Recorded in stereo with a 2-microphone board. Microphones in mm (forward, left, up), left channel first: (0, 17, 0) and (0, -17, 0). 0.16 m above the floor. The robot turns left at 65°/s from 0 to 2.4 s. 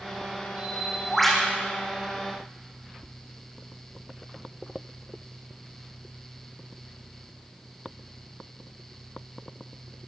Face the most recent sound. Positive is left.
turn(degrees=100)